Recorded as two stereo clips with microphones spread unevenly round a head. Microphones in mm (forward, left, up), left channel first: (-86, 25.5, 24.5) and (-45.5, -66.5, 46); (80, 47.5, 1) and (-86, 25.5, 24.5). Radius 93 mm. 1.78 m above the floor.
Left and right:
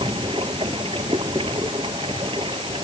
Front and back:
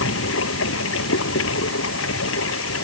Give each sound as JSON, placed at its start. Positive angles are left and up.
{"t": 0.0, "sound": "running water", "azimuth_deg": 0}